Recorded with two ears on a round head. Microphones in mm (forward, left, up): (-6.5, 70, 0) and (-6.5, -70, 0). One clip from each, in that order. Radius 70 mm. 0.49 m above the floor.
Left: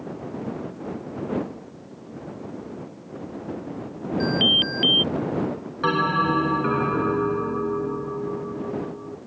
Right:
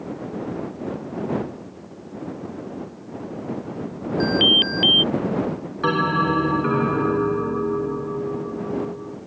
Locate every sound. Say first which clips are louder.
4.2 s an alarm: right 3 dB; 5° right (ahead or behind)
5.8 s a bell: right 1 dB; 15° left (ahead or behind)